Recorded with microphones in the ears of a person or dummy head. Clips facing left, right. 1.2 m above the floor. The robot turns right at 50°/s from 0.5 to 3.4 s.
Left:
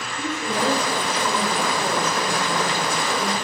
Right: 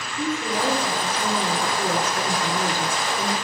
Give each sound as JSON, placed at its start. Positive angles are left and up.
{"t": 0.2, "sound": "a woman speaking", "azimuth_deg": 175, "distance_m": 4.0}